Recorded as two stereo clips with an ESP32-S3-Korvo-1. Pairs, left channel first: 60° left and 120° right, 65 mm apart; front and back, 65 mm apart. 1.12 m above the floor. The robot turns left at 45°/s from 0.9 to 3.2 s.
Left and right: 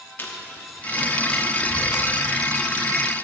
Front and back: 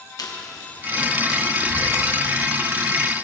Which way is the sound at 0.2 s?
5° left.